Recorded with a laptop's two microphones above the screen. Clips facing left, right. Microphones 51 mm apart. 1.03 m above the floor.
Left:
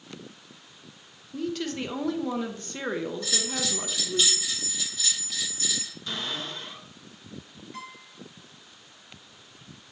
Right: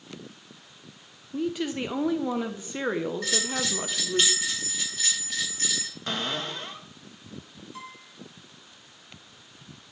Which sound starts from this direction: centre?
A woman speaking, at 1.3 s.